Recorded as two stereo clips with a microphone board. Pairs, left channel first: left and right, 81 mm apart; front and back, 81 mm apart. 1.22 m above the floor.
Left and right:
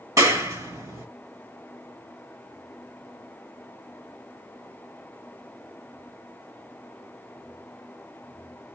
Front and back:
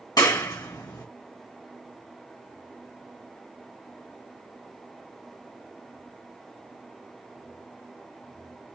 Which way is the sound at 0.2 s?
40° right.